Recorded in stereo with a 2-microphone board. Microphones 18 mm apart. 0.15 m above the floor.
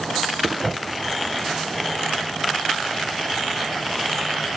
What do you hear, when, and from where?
0.6 s a whoosh: 45° left (ahead or behind), 2.0 m